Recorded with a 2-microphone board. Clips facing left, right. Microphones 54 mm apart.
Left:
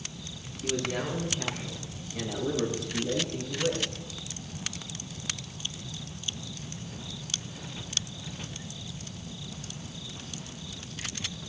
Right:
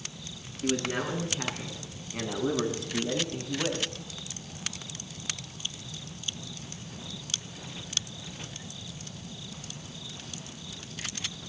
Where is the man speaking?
50° right (ahead or behind), 6 m; by 3.9 s 40° right (ahead or behind), 3.5 m.